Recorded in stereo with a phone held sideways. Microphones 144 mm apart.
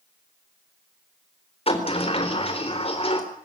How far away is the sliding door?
About 4 m.